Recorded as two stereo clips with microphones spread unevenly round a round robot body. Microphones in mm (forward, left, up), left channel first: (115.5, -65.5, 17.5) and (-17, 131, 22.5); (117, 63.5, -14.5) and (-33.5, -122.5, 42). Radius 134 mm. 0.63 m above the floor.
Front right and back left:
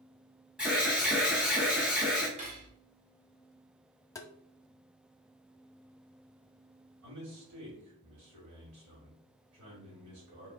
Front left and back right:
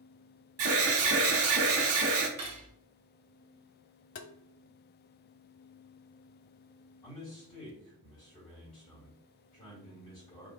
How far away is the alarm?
About 1.1 m.